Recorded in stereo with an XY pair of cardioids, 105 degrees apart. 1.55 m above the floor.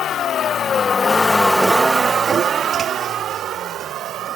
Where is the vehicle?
60° left; by 4.4 s 80° right.